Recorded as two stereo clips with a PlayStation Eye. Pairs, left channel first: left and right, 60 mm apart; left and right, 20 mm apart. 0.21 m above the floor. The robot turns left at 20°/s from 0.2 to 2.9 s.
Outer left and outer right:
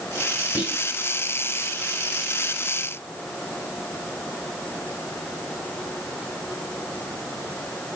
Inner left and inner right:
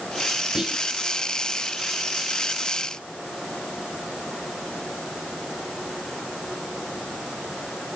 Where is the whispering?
30° right (ahead or behind), 1.2 m.